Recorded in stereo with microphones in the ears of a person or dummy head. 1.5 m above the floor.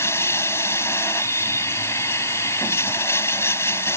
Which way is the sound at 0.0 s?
15° left (ahead or behind).